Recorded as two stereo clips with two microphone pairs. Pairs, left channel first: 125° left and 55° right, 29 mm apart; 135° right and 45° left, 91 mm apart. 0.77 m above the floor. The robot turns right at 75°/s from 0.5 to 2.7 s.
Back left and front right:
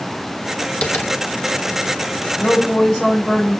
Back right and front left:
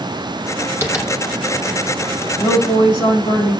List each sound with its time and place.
0.8 s tapping: 105° left, 1.9 m; by 1.1 s 125° left, 1.9 m
2.4 s a woman speaking: 160° left, 7 m; by 3.6 s 175° right, 7 m